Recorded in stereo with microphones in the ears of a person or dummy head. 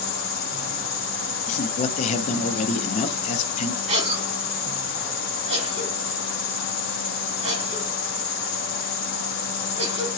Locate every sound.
0.0 s an insect: 30° left (ahead or behind), 1.8 m
1.5 s a man speaking: 45° left (ahead or behind), 0.6 m
3.9 s a cough: 35° right (ahead or behind), 2 m